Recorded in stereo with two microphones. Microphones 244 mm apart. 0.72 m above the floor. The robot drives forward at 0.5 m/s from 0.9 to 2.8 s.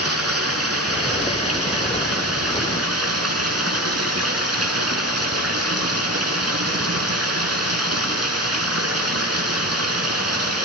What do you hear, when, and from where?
0.0 s running water: 75° right (ahead or behind), 6 m; by 10.7 s 85° right, 6 m